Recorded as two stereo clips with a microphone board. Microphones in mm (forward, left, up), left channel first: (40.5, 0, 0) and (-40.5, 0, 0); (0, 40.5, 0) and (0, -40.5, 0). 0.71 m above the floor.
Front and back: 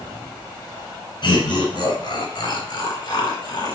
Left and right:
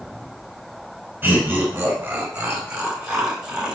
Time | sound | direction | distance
1.2 | laughter | 20° right | 5 m